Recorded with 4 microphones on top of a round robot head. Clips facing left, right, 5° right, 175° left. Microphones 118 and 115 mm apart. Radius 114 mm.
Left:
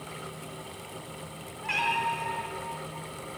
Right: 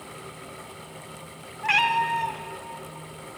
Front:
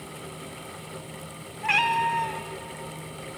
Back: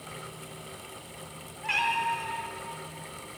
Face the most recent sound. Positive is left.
turn(degrees=-50)